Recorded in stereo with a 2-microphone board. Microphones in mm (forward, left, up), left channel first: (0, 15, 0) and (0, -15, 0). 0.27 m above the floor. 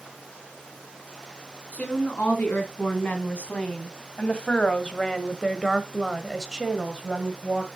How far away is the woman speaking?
About 3 m.